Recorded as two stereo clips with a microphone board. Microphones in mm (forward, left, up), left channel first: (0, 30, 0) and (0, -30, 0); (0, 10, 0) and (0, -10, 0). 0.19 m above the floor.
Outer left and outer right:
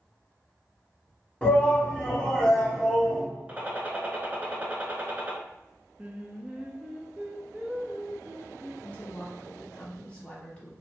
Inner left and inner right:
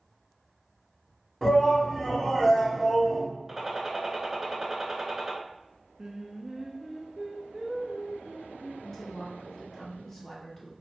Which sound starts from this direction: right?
A gunshot, at 3.5 s.